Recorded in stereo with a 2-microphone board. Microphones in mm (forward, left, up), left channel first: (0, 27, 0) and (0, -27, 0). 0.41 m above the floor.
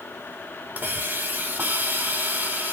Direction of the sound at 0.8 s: 30° right (ahead or behind).